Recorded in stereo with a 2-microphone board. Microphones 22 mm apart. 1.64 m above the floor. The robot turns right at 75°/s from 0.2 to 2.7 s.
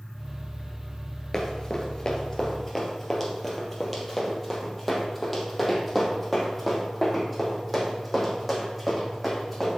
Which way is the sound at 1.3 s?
20° left (ahead or behind).